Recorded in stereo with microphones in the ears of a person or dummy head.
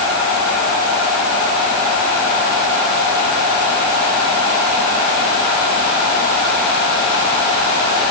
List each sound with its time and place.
Only background noise.